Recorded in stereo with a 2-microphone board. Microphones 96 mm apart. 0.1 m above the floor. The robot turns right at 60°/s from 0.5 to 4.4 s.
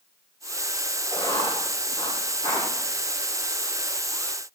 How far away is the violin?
No violin in this recording.